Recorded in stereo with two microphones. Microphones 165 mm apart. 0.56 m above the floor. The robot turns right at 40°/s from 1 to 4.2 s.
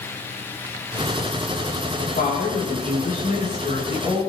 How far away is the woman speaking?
About 6.5 m.